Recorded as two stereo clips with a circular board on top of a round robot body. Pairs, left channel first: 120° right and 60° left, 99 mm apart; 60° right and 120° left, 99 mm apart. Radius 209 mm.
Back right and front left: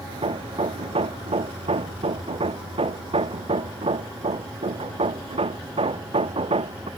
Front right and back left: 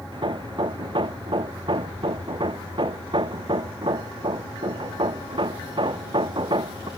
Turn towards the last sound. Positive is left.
turn(degrees=85)